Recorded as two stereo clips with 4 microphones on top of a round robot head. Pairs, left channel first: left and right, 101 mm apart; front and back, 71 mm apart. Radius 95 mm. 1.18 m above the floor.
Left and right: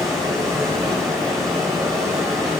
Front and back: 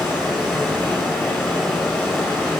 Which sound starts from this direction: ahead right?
Running water, at 0.0 s.